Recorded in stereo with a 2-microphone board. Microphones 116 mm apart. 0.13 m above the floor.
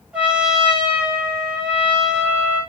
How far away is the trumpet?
About 3.5 m.